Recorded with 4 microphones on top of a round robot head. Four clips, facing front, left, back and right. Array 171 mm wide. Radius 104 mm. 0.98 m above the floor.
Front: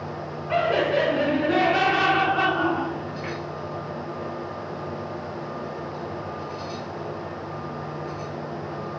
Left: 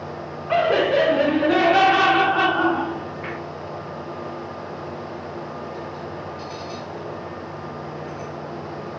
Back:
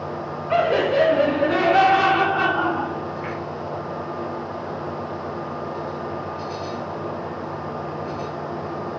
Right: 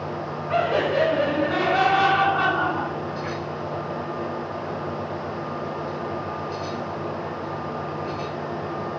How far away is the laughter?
About 4 m.